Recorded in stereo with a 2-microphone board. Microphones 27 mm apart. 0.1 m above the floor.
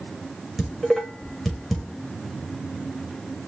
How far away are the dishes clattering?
About 6 m.